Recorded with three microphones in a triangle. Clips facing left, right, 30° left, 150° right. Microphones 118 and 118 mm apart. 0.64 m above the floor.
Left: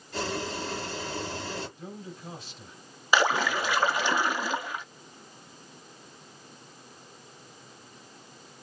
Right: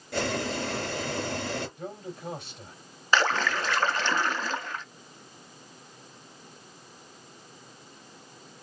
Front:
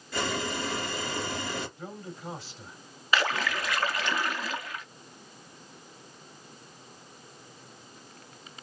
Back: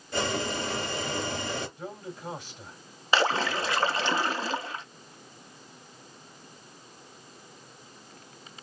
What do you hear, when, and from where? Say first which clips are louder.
0.1 s boiling: right 3 dB, back 2 dB; 85° right, 3.5 m
1.8 s a man speaking: right 4 dB, back 2 dB; 80° right, 4 m
3.1 s a splash: left 1 dB, back 3 dB; 165° left, 0.5 m